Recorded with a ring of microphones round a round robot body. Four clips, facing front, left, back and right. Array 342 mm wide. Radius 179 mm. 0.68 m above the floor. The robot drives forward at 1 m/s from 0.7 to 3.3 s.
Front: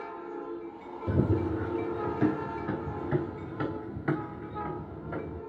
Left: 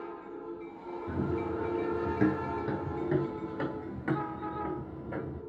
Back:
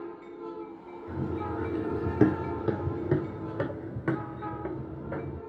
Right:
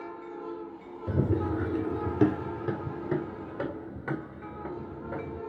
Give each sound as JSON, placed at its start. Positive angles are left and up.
{"t": 1.1, "sound": "running footsteps", "azimuth_deg": -30, "distance_m": 1.2}